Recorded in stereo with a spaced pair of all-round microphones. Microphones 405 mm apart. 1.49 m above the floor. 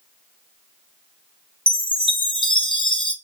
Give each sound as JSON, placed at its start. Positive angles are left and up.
{"t": 1.7, "sound": "a chime", "side_deg": 10, "distance_m": 0.6}